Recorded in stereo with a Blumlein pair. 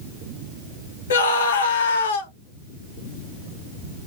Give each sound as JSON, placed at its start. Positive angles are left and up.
{"t": 1.1, "sound": "a scream", "azimuth_deg": 65, "distance_m": 1.3}